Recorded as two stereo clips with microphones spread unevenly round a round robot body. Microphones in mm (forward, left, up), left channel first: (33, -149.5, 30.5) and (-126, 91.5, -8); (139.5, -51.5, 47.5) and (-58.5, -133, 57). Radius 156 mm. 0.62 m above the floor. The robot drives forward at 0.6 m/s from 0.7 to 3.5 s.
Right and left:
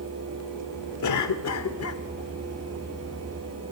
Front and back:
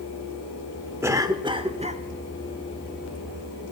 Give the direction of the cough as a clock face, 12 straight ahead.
3 o'clock.